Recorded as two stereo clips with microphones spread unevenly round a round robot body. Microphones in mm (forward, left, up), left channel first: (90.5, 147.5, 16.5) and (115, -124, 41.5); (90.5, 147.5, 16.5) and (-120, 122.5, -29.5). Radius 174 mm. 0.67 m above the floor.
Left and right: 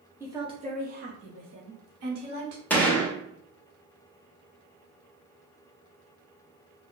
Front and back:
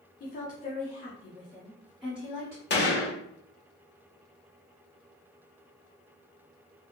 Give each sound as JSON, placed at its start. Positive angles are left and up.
{"t": 0.2, "sound": "a woman speaking", "azimuth_deg": 0, "distance_m": 0.8}
{"t": 2.7, "sound": "a gunshot", "azimuth_deg": 20, "distance_m": 1.1}